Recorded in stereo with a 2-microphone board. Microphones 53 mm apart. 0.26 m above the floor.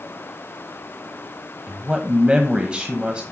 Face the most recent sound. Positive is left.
turn(degrees=-20)  # may be behind; listen again after turning